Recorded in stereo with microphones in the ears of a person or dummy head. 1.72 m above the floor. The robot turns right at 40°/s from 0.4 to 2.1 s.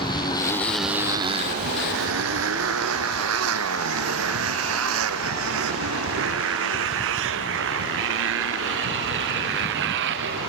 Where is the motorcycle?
25° left (ahead or behind); by 10.5 s 70° right (ahead or behind).